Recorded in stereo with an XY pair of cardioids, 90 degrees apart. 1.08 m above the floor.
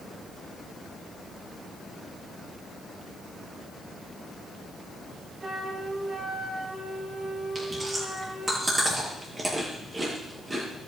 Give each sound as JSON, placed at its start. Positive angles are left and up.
{"t": 5.4, "sound": "a flute", "azimuth_deg": -45, "distance_m": 5.0}
{"t": 7.5, "sound": "chewing", "azimuth_deg": -25, "distance_m": 8.0}